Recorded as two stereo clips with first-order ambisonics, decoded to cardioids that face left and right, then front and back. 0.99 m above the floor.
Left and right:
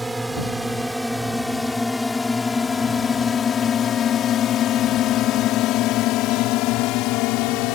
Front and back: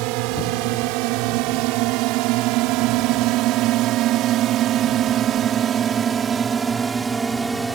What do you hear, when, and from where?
0.0 s a drone: 175° right; by 7.8 s 100° left